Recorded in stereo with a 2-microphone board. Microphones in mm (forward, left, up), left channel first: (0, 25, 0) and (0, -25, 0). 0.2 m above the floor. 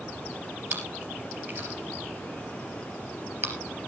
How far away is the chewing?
About 3 m.